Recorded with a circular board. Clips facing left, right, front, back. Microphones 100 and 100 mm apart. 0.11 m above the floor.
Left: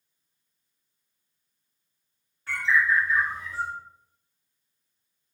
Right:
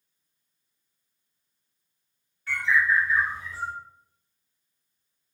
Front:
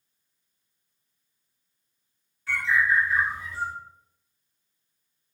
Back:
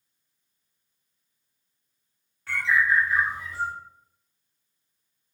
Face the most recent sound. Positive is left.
turn(degrees=145)